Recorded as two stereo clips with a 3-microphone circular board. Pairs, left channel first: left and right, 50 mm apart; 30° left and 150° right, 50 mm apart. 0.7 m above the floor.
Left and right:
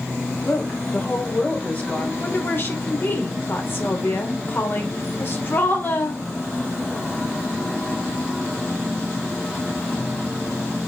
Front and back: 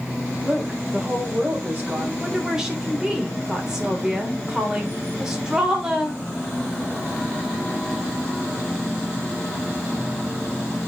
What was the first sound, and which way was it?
A woman speaking, 140° left.